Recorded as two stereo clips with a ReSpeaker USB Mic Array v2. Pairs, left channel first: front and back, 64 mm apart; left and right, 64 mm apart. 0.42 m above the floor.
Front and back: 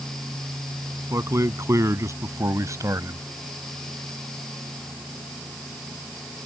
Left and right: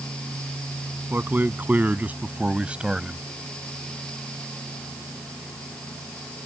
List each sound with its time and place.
1.1 s a man speaking: 145° right; by 3.2 s 165° right